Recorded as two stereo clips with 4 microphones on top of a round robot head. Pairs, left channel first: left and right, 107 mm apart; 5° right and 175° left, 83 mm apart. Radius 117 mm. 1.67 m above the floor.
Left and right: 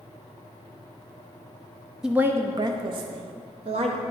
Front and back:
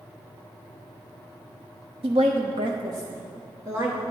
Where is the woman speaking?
175° right, 0.5 m; by 4.0 s 115° right, 1.4 m.